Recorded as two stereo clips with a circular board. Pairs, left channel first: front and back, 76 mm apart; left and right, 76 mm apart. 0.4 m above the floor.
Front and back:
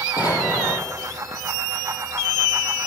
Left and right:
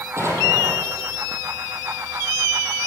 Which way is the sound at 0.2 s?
35° right.